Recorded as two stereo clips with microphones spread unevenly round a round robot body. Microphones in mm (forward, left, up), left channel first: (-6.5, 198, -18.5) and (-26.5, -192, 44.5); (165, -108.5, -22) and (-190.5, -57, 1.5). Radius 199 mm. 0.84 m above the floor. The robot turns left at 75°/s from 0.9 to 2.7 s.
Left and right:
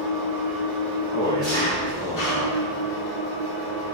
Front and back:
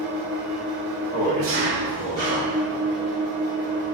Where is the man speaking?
105° right, 1.2 m; by 2.6 s 145° left, 1.2 m.